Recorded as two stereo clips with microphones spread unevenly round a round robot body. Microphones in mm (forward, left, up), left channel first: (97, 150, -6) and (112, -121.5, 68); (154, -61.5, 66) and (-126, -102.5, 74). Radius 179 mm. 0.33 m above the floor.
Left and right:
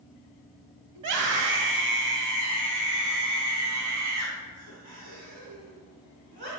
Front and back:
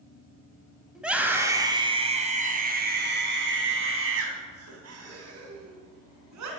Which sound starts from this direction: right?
A scream, at 0.9 s.